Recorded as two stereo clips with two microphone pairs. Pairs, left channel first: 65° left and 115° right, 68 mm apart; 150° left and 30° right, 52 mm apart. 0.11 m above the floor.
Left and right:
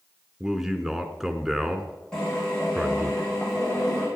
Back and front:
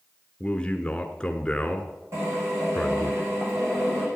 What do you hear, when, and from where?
0.4 s a man speaking: 170° left, 1.2 m
2.1 s a drill: 10° right, 7.5 m